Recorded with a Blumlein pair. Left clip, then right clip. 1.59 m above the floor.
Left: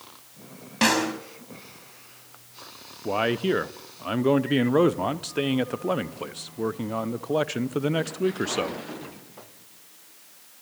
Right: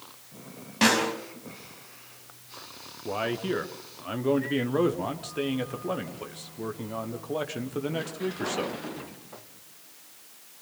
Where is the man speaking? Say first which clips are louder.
Left 5 dB; 20° left, 0.9 m.